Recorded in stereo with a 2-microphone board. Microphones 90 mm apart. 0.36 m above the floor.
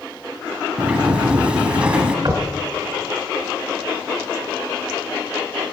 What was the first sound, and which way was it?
A sliding door, 15° right (ahead or behind).